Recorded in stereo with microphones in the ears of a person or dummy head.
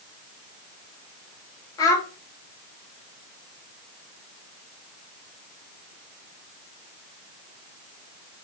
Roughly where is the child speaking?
Left.